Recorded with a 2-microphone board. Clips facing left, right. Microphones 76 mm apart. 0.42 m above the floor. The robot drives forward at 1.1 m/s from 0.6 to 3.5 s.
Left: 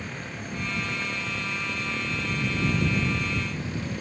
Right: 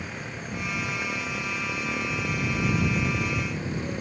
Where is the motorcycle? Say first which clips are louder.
Even; 10° right (ahead or behind); by 4.0 s 25° right (ahead or behind).